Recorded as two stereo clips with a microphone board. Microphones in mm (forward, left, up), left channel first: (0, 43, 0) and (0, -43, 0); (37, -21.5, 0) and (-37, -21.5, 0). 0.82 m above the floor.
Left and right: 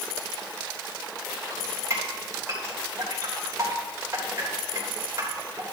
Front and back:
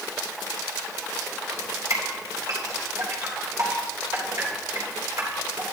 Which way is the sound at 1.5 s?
150° right.